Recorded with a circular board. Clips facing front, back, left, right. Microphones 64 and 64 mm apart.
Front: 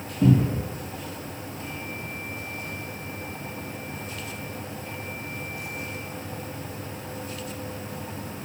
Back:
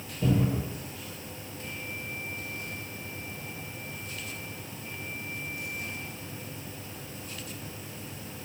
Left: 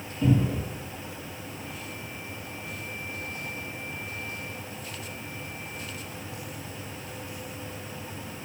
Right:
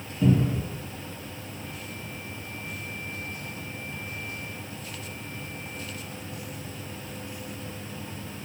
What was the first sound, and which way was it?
A cupboard door, 20° right.